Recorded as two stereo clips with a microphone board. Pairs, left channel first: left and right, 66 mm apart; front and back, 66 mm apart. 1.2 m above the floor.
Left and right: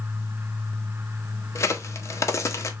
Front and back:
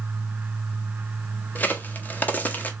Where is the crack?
60° left, 0.6 m.